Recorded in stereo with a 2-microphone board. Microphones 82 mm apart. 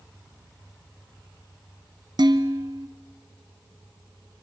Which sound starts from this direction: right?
Dishes clattering, at 2.2 s.